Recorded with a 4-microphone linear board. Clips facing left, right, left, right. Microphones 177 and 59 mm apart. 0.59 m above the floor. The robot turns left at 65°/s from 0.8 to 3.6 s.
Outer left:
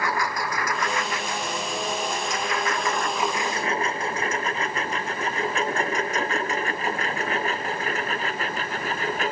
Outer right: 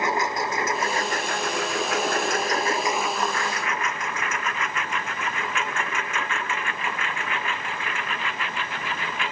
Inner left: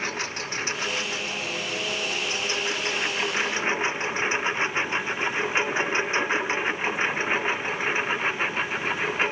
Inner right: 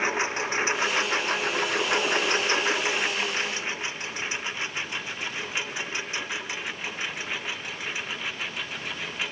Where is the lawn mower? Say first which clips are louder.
Outer right 2 dB, inner right 4 dB; 20° right (ahead or behind); by 9.3 s 40° left (ahead or behind).